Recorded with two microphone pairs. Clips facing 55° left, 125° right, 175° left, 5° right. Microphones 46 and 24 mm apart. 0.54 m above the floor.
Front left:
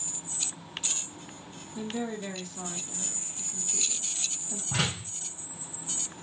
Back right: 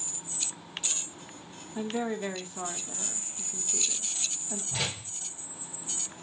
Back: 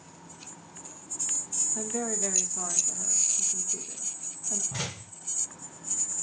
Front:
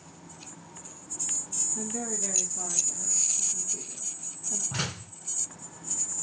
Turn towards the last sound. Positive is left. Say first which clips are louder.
# front left 5 dB, front 3 dB
turn(degrees=40)